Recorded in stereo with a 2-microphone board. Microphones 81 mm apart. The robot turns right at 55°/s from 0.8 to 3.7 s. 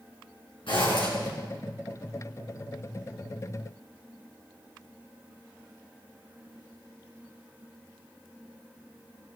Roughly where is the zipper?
Left.